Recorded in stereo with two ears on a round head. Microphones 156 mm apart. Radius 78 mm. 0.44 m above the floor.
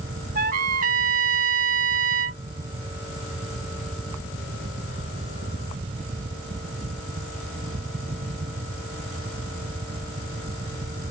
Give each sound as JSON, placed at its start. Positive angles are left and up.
{"t": 0.3, "sound": "a trumpet", "side_deg": -45}